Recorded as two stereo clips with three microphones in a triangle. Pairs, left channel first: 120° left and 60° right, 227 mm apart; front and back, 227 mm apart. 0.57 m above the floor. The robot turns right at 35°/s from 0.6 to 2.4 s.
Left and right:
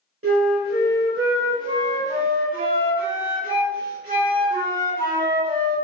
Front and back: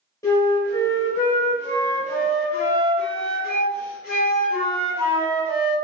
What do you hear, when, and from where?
0.2 s a flute: 75° right, 1.4 m; by 5.8 s 10° right, 1.4 m